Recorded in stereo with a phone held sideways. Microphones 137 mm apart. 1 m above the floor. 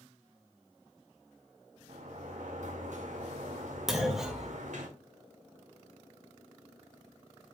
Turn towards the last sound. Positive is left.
turn(degrees=0)  # may be behind; listen again after turning